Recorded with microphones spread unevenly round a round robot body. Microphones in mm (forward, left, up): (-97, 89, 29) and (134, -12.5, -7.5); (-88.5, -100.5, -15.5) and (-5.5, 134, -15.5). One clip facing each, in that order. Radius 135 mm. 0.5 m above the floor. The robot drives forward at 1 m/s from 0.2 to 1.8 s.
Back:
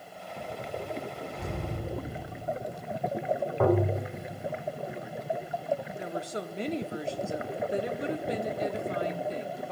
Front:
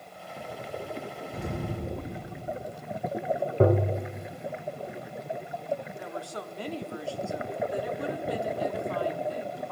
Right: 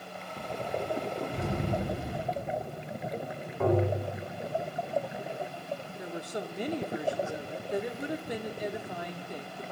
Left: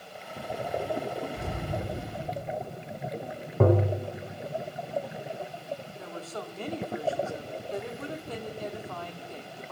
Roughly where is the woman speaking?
Behind right.